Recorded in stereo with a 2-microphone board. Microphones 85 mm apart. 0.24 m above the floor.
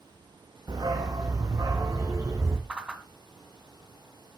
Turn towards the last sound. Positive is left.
turn(degrees=-10)  # may be behind; listen again after turning